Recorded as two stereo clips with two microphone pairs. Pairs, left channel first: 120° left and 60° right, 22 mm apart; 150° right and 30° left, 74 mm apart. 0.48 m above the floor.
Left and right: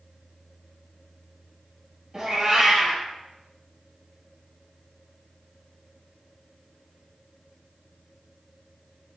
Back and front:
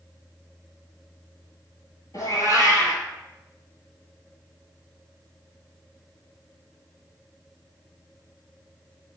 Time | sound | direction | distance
2.1 | a cat meowing | 125° right | 0.9 m